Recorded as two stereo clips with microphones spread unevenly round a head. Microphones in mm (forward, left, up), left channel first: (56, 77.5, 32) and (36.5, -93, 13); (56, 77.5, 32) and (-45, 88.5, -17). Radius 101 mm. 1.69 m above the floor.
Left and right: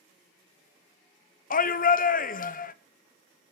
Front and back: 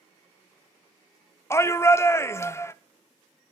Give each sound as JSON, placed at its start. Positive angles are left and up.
{"t": 1.5, "sound": "a shout", "azimuth_deg": 50, "distance_m": 0.9}